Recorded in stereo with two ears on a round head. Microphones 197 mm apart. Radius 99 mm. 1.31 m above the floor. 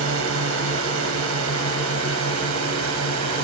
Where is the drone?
70° right (ahead or behind); by 3.5 s 75° right (ahead or behind).